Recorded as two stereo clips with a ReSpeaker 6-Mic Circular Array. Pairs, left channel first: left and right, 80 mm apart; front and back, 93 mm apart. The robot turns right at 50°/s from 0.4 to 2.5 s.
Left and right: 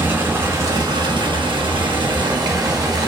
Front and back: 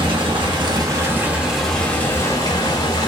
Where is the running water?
150° right, 1.0 m; by 3.1 s 45° right, 1.0 m.